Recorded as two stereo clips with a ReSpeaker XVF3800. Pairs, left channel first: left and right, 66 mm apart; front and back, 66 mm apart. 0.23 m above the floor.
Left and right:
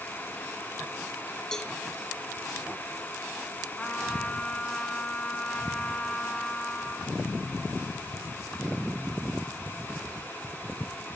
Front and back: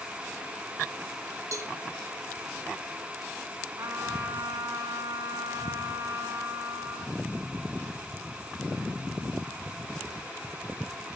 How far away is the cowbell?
About 1.9 m.